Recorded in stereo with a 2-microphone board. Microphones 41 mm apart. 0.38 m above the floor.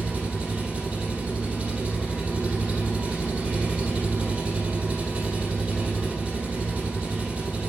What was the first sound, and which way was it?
An engine running, 35° right (ahead or behind).